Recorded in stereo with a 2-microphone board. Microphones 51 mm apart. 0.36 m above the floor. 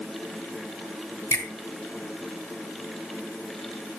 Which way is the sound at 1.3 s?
65° left (ahead or behind).